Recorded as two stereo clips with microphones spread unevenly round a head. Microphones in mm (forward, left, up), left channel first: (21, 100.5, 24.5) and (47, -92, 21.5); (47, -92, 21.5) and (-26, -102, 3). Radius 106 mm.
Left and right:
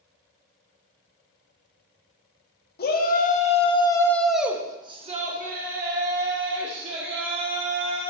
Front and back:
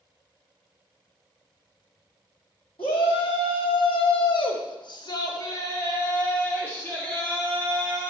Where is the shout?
55° left, 2 m; by 8.1 s 60° right, 4 m.